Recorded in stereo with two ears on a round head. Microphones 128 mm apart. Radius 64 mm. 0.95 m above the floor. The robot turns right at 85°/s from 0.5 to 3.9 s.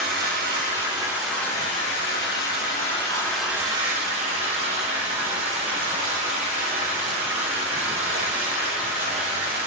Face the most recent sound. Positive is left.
turn(degrees=-135)